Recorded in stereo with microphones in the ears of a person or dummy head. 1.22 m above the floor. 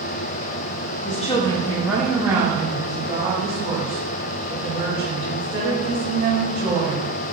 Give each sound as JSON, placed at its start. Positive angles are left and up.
{"t": 1.1, "sound": "a woman speaking", "side_deg": 35, "distance_m": 0.7}